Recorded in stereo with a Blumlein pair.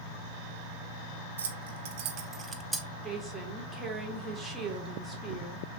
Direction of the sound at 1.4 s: 65° right.